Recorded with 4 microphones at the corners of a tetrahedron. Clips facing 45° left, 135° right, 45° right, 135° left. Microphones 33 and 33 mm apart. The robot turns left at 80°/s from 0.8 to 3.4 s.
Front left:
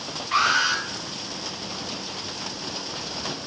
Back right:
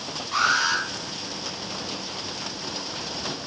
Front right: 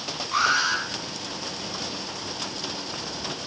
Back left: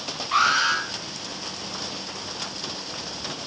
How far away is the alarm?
About 6.5 m.